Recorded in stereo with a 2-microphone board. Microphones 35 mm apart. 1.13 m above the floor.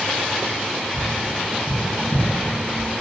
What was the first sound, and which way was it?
Tapping, 55° right (ahead or behind).